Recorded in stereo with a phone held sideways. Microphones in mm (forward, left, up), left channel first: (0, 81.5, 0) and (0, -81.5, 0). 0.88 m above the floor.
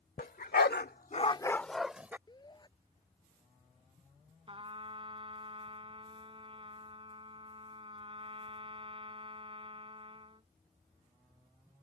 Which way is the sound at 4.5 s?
35° right (ahead or behind).